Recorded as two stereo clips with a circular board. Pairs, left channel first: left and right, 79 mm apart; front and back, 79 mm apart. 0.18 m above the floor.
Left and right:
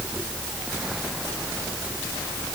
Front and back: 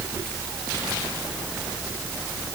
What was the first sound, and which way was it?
Only background noise.